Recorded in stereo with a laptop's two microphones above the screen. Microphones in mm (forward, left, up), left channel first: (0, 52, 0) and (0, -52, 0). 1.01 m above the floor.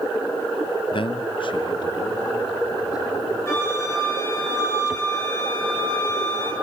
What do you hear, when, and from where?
0.9 s a man speaking: 50° left (ahead or behind), 0.6 m; by 3.4 s 40° left (ahead or behind), 4 m
3.5 s a flute: 25° left (ahead or behind), 7.5 m